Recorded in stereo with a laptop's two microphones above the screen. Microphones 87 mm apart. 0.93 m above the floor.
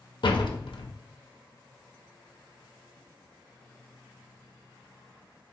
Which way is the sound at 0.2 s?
65° left (ahead or behind).